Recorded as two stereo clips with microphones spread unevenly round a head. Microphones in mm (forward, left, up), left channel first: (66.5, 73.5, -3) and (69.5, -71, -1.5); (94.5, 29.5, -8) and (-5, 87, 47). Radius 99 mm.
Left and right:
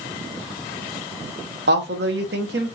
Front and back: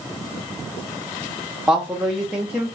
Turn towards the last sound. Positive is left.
turn(degrees=-120)